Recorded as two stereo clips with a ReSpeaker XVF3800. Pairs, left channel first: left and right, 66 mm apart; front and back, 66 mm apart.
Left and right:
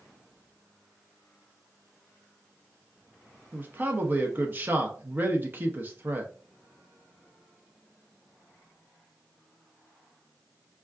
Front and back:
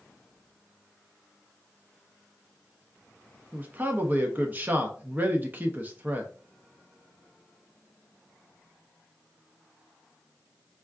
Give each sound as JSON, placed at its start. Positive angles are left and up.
{"t": 3.5, "sound": "a man speaking", "azimuth_deg": -130, "distance_m": 0.6}